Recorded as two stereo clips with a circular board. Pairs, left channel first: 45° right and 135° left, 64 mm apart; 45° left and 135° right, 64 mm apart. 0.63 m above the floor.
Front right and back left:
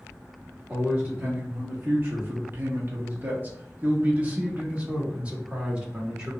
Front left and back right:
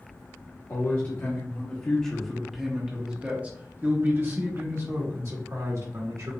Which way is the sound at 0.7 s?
80° left.